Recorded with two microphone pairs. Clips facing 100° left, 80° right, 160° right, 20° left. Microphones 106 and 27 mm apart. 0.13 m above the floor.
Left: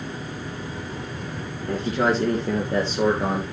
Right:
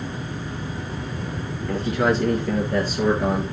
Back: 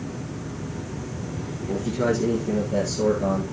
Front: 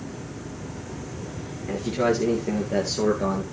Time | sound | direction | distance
1.7 | a man speaking | 60° left | 2 m